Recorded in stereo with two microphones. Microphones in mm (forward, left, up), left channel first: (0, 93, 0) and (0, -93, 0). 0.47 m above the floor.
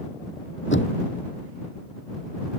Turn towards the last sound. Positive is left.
turn(degrees=80)